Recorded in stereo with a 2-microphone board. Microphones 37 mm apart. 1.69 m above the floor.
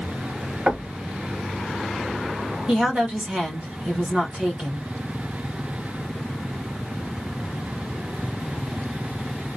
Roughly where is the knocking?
Right.